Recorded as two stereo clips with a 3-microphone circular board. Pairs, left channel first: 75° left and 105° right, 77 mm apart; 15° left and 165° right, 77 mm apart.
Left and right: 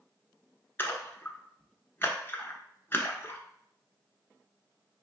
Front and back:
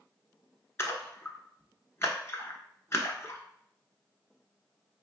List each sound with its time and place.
0.8 s a splash: 35° left, 0.7 m